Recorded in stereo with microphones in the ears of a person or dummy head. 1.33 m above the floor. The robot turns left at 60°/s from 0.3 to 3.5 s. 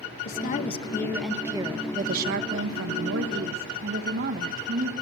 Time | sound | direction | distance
0.2 | a woman speaking | 60° left | 1.6 m